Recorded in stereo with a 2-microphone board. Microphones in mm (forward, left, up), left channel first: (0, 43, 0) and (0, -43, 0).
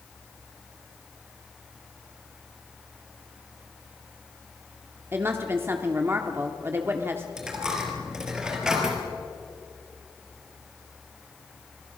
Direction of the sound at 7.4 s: 10° right (ahead or behind).